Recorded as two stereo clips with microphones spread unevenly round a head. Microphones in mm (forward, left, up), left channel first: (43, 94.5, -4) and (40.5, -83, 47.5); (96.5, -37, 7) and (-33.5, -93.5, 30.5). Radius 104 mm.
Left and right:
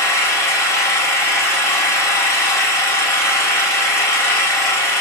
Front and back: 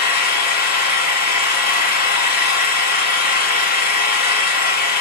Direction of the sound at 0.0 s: 10° left.